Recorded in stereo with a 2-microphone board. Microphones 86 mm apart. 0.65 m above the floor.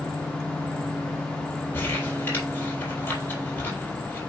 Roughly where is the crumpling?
Left.